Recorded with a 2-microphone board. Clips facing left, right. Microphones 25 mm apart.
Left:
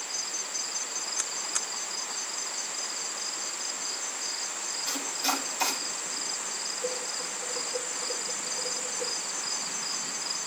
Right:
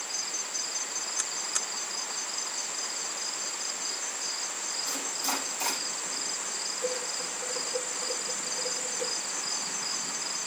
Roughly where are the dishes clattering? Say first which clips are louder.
Right 2 dB; right.